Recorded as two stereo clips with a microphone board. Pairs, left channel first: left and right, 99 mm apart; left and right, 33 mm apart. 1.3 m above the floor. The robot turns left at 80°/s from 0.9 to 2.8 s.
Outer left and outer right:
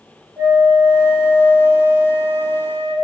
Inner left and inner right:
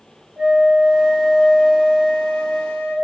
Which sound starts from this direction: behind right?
A flute, at 0.4 s.